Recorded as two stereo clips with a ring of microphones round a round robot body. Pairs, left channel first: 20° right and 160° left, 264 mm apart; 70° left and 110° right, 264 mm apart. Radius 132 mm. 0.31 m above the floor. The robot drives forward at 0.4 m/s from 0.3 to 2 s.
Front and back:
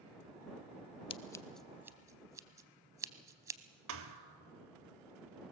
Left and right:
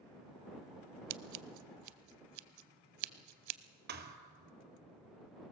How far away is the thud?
About 1.2 m.